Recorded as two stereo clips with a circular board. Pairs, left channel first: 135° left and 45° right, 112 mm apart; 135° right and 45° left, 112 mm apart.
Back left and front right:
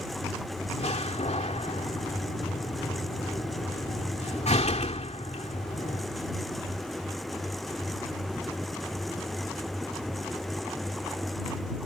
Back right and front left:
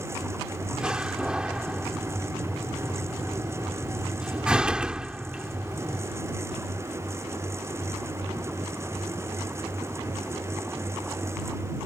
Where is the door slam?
125° left.